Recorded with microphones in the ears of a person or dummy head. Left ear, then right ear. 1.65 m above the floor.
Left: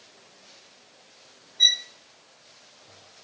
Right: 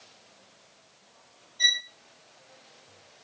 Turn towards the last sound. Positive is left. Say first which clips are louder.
# left 4 dB
turn(degrees=0)  # may be behind; listen again after turning